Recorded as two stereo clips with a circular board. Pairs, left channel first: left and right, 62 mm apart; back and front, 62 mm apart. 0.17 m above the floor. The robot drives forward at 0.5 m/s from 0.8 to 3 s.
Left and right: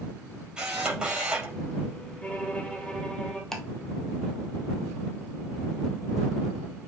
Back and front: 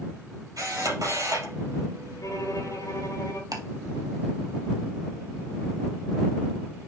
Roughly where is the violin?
Behind.